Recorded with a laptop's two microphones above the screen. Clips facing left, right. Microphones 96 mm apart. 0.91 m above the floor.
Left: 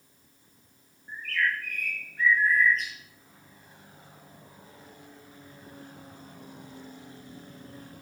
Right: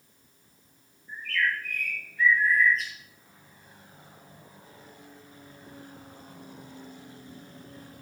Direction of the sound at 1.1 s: 65° left (ahead or behind).